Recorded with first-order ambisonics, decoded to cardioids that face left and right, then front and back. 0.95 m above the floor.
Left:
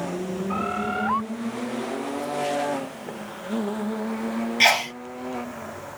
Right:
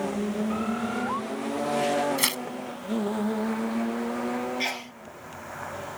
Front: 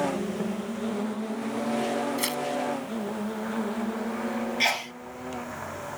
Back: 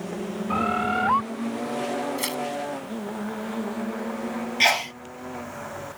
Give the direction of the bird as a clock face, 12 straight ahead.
7 o'clock.